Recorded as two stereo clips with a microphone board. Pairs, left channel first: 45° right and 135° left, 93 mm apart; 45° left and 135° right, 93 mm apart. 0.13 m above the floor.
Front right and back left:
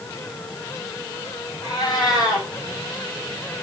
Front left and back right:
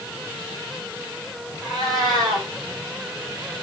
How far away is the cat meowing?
About 3.5 m.